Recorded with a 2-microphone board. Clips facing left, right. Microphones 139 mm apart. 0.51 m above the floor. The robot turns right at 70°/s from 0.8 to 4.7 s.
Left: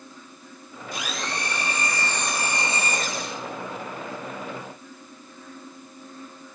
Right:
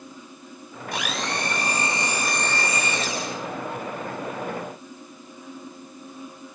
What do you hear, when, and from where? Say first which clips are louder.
0.9 s a blender: right 3 dB; 100° right, 2.5 m; by 3.4 s 75° left, 2.5 m